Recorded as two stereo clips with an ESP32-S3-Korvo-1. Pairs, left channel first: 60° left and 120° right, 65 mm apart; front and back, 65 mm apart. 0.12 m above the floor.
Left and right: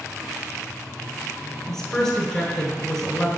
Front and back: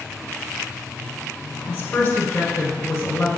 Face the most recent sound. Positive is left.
turn(degrees=5)